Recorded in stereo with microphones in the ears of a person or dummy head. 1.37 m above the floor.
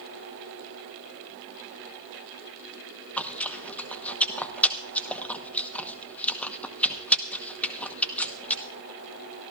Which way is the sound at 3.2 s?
10° left (ahead or behind).